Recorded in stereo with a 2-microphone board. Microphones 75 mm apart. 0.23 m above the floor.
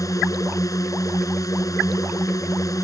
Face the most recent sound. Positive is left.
turn(degrees=50)  # may be behind; listen again after turning